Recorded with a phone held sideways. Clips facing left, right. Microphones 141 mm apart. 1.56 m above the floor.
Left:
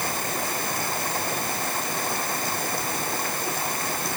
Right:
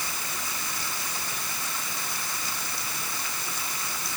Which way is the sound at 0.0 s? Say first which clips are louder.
Left 9 dB; 60° left (ahead or behind).